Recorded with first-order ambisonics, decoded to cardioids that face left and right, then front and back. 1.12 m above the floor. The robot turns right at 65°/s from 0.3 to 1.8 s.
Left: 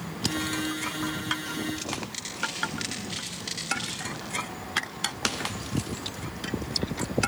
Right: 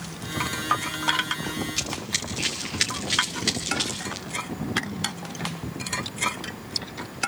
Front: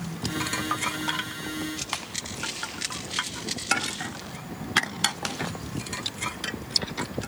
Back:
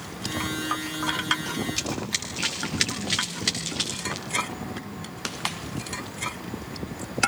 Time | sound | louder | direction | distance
1.8 | running footsteps | right 5 dB, back 4 dB | 140° right | 7.5 m